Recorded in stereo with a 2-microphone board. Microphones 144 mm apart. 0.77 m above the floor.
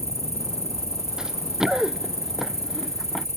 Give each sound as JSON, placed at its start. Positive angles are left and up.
{"t": 0.0, "sound": "an insect", "side_deg": 50}
{"t": 1.2, "sound": "running footsteps", "side_deg": -5}